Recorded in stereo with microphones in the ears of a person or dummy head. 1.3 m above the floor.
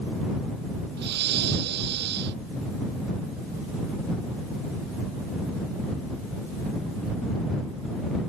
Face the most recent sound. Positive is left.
turn(degrees=-60)  # may be behind; listen again after turning